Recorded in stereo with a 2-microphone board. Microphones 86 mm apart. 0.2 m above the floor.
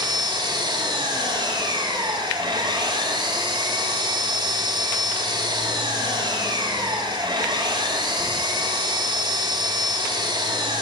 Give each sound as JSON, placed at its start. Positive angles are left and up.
{"t": 0.0, "sound": "an engine running", "side_deg": -60, "distance_m": 8.0}